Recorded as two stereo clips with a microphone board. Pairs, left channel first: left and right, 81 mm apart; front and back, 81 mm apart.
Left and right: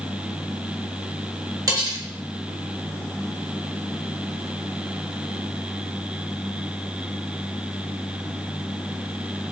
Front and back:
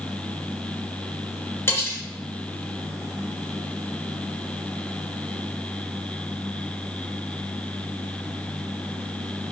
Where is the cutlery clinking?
55° right, 1.7 m.